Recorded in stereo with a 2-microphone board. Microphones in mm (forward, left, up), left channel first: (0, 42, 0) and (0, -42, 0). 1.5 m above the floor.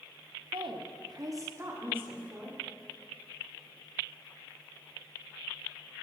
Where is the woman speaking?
80° right, 0.6 m; by 2.6 s 15° right (ahead or behind), 1.4 m.